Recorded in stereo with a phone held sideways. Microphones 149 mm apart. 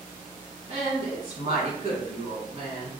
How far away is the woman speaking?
About 1.7 m.